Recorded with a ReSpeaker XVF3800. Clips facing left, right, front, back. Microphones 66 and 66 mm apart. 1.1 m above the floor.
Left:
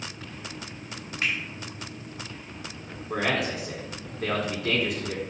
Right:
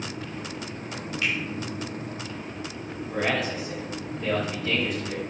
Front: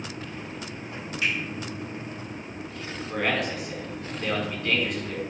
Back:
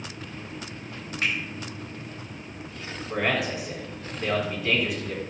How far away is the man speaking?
About 4 m.